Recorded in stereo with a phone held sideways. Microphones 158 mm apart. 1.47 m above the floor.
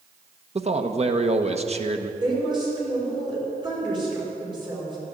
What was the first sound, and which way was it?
A man speaking, 45° right (ahead or behind).